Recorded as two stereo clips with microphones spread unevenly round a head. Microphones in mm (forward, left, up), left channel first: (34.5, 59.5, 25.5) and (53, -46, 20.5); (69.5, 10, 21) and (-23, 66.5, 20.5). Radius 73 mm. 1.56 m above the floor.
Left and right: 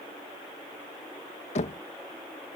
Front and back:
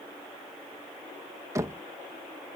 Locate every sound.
1.6 s knocking: 85° left